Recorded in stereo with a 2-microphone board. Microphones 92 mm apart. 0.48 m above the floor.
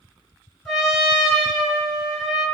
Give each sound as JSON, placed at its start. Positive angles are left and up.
{"t": 0.7, "sound": "a trumpet", "side_deg": 0, "distance_m": 2.5}